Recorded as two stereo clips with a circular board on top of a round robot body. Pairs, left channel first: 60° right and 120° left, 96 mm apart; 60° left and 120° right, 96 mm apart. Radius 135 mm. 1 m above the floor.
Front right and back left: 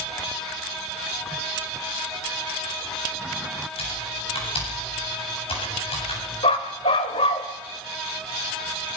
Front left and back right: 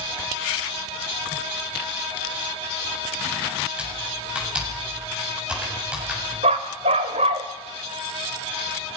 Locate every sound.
3.8 s typing on a keyboard: 40° right, 8 m
6.4 s a dog barking: 95° right, 1.1 m